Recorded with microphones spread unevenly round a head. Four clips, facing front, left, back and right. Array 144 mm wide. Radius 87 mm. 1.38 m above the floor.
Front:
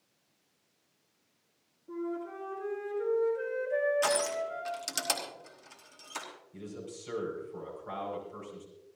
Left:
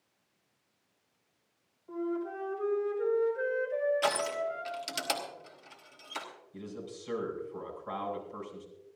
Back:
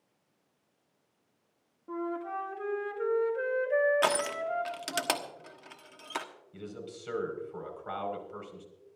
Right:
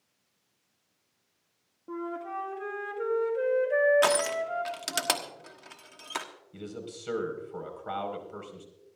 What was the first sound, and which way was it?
A flute, 115° right.